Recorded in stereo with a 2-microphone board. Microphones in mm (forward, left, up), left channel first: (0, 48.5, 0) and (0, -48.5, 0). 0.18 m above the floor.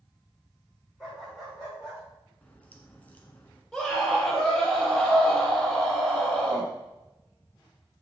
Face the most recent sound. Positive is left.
turn(degrees=5)  # may be behind; listen again after turning